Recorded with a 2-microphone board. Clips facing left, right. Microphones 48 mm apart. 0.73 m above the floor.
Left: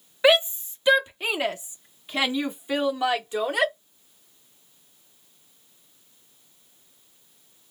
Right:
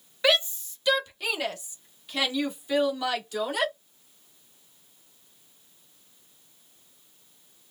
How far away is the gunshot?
I don't hear a gunshot.